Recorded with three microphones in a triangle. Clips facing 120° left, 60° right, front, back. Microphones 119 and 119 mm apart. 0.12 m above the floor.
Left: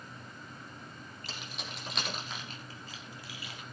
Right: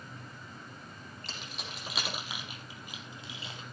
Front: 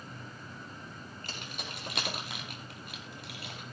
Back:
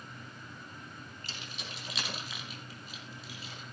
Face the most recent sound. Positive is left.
turn(degrees=0)